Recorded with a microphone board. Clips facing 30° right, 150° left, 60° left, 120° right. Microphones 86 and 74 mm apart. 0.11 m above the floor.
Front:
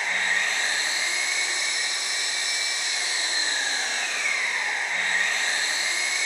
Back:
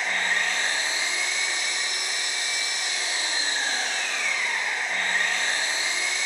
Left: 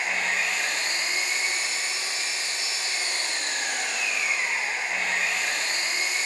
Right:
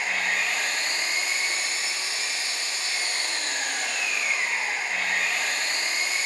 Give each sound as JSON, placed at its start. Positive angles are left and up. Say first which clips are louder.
{"t": 0.0, "sound": "an engine running", "louder": "even, even", "azimuth_deg": 120, "distance_m": 0.8}